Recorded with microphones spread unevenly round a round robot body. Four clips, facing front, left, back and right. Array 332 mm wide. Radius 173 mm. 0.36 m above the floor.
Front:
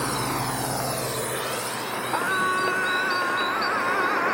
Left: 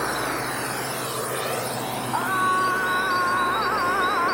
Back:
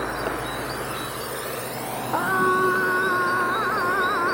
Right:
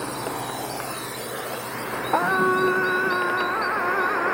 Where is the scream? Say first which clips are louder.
Right 2 dB, back 4 dB; 125° right.